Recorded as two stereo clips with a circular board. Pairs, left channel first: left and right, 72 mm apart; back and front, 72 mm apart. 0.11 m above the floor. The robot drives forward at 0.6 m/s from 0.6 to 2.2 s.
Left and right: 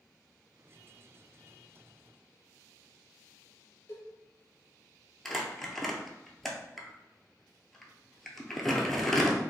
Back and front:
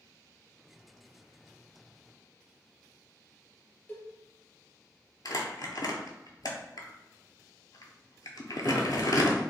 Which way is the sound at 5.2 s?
175° left.